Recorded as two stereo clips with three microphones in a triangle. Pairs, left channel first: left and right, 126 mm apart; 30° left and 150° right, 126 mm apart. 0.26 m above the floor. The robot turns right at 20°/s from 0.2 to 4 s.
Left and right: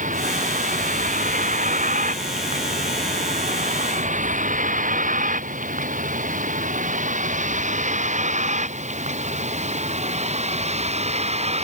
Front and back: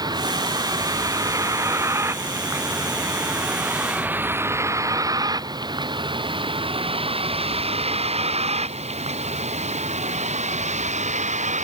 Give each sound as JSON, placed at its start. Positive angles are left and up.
{"t": 0.0, "sound": "a vehicle", "azimuth_deg": -90}